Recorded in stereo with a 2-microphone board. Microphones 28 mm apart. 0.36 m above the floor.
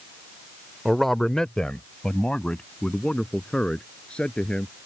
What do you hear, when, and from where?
0.8 s a man speaking: 5° right (ahead or behind); by 4.7 s 35° left (ahead or behind)